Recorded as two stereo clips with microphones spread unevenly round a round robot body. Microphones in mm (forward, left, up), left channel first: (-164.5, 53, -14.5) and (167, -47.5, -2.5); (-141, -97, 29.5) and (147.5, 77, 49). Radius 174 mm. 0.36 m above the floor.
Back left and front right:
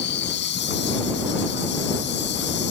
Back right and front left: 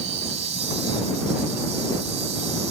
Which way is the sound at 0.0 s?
105° left.